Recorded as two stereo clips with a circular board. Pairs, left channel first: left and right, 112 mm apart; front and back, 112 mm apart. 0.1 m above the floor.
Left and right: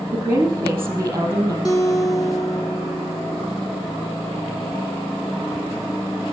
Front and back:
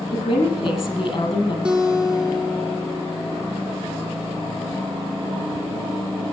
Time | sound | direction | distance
0.1 | a woman speaking | 25° right | 3.5 m
1.6 | a guitar | 105° left | 1.5 m